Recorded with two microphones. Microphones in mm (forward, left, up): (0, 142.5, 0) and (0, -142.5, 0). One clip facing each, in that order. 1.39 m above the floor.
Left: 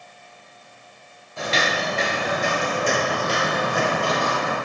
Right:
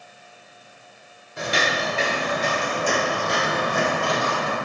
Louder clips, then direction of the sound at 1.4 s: Even; 20° right (ahead or behind).